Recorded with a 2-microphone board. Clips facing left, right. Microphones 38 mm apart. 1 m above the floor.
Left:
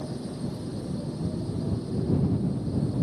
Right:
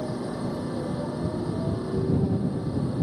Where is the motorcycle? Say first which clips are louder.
Right 4 dB; 80° right; by 3.0 s 65° right (ahead or behind).